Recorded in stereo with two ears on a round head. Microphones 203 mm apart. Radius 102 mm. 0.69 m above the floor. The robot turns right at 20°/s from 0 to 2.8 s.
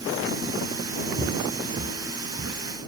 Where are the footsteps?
60° right (ahead or behind); by 2.6 s 55° right (ahead or behind).